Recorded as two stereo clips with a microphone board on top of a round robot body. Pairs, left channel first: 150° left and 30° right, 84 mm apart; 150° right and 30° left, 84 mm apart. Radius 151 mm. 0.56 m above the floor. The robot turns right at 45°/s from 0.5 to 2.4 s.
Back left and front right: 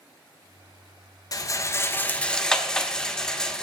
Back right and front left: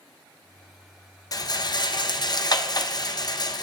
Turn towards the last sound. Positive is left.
turn(degrees=-130)